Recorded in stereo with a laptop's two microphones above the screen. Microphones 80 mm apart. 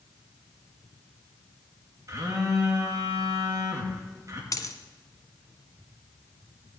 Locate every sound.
2.1 s a phone buzzing: 40° right (ahead or behind), 1.7 m
4.5 s a dropped coin: 45° left (ahead or behind), 1.2 m